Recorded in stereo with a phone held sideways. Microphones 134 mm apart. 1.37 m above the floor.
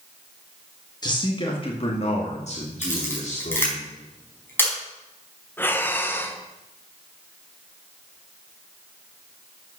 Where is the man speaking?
30° left (ahead or behind), 1.7 m; by 3.8 s 65° left (ahead or behind), 3 m.